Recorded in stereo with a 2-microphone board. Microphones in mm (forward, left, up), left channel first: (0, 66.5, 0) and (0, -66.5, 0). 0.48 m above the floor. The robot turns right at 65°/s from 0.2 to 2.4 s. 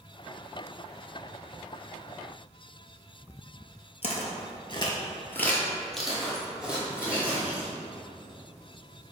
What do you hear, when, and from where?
4.0 s footsteps: 50° left (ahead or behind), 0.7 m; by 7.7 s 15° right (ahead or behind), 1.9 m